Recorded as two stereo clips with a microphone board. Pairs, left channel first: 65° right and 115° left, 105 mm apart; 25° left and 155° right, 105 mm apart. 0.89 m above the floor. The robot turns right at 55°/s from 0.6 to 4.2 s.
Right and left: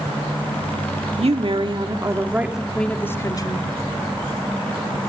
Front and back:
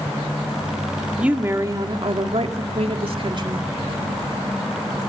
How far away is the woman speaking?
About 1.9 m.